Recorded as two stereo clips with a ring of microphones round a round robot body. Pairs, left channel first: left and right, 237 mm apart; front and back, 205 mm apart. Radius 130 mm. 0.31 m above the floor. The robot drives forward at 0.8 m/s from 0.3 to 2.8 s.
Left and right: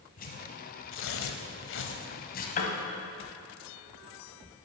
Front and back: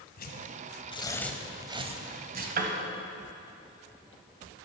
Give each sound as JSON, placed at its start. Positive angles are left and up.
{"t": 0.2, "sound": "tearing paper", "azimuth_deg": 40, "distance_m": 1.2}
{"t": 2.6, "sound": "a piano", "azimuth_deg": 140, "distance_m": 0.9}